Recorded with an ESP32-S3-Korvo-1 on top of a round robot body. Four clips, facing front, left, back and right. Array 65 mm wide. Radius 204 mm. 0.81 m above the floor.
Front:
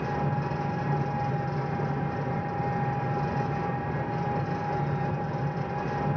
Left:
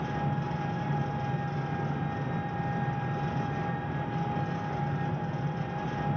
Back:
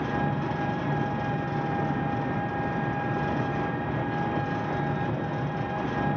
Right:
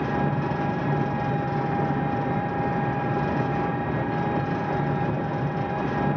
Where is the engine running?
110° right, 2.5 m.